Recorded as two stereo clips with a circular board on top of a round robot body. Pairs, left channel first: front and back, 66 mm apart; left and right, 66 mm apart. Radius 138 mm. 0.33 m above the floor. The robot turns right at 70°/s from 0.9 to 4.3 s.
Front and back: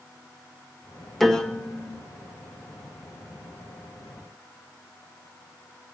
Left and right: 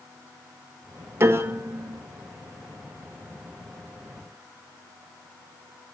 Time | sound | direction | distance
1.2 | a piano | 85° right | 1.6 m